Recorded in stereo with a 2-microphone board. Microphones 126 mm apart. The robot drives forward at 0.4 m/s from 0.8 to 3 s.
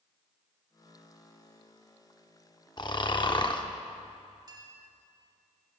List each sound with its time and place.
2.8 s snoring: 35° left (ahead or behind), 0.7 m; by 3.7 s 40° left (ahead or behind), 0.6 m
4.5 s a clink: 35° right (ahead or behind), 1.8 m